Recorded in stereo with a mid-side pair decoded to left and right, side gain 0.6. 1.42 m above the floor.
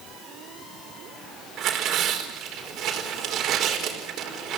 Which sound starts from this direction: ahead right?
Tearing paper, at 1.6 s.